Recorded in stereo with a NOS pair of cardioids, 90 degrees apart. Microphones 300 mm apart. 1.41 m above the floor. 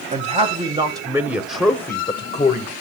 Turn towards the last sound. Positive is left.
turn(degrees=35)